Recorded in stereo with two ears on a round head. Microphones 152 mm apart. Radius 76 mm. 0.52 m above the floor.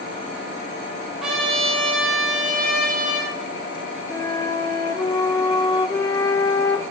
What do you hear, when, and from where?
1.2 s a trumpet: 5° right (ahead or behind), 7.5 m
4.1 s a flute: 20° left (ahead or behind), 0.7 m